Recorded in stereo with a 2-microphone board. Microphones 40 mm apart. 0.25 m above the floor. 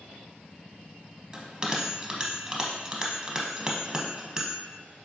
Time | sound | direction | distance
1.3 | a bell | 20° right (ahead or behind) | 0.7 m